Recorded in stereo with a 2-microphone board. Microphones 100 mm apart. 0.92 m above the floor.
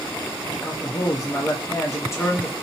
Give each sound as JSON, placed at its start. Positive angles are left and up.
{"t": 0.5, "sound": "a man speaking", "side_deg": 30, "distance_m": 0.9}